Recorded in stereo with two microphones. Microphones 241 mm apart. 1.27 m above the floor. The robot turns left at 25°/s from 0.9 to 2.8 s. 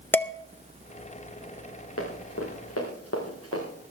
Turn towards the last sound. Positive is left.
turn(degrees=70)  # may be behind; listen again after turning